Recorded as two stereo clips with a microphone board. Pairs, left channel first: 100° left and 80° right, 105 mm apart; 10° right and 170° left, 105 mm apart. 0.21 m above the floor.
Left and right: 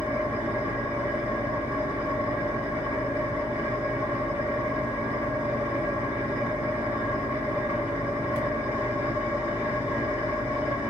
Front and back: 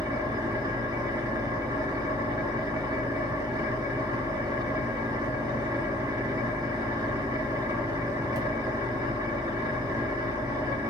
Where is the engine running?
145° right, 2.0 m.